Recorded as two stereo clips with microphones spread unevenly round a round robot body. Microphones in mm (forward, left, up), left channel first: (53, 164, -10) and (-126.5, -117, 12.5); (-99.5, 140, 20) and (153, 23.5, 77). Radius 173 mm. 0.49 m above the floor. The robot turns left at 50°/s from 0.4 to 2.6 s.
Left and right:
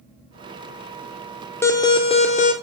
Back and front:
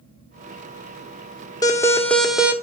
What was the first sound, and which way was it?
An alarm, 125° left.